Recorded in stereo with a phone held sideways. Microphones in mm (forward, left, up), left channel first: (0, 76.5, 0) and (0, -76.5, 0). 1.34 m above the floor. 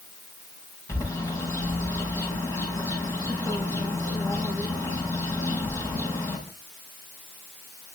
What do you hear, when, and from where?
0.9 s a bird: 20° left (ahead or behind), 7 m